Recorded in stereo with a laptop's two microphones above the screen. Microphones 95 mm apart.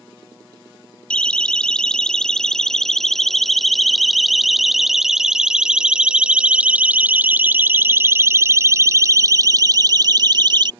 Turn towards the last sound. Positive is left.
turn(degrees=-50)  # may be behind; listen again after turning